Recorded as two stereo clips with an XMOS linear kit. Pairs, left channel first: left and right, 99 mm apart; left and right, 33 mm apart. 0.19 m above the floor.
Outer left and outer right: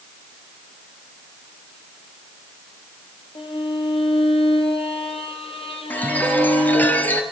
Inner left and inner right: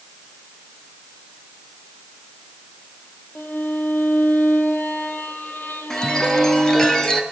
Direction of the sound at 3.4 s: 70° left (ahead or behind).